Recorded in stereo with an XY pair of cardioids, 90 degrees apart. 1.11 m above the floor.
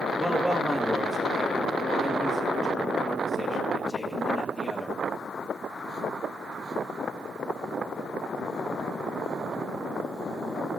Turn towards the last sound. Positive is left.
turn(degrees=20)